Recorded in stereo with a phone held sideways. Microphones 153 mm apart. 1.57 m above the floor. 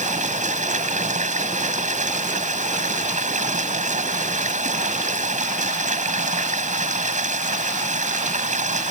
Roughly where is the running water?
Right.